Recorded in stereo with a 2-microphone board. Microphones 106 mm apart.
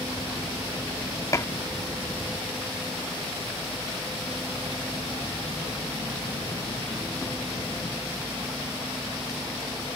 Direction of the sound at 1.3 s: 30° left (ahead or behind).